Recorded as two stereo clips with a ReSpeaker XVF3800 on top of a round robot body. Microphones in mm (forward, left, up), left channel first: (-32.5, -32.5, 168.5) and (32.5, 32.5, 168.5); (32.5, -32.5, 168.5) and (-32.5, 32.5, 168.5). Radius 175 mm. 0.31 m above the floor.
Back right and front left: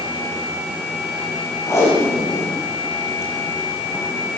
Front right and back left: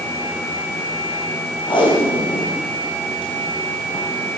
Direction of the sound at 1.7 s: 75° right.